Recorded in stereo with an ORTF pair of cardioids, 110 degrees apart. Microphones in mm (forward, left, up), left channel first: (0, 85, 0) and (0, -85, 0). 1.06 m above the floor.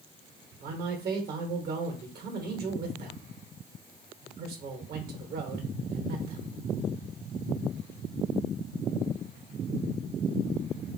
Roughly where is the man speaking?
Ahead right.